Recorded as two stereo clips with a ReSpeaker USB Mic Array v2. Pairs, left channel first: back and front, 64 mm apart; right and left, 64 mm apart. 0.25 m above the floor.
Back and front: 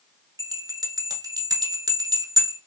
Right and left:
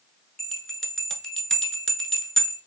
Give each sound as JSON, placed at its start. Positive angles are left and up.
{"t": 0.4, "sound": "a bell", "azimuth_deg": -10, "distance_m": 0.5}